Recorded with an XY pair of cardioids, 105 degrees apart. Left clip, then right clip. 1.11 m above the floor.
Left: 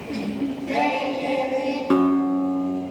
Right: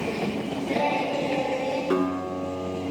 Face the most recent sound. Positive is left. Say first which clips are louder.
# left 6 dB
turn(degrees=50)